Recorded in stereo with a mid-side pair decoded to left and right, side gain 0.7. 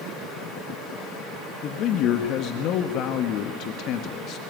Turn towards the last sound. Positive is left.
turn(degrees=55)